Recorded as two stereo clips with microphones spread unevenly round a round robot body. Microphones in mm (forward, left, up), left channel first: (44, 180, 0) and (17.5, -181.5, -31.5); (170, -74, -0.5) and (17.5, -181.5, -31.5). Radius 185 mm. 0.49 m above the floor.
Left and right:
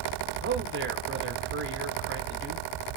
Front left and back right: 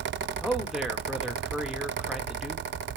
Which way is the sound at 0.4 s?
70° right.